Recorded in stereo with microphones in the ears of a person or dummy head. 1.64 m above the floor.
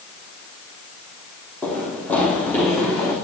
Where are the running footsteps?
5° left (ahead or behind), 3 m; by 3.1 s 15° left (ahead or behind), 4 m.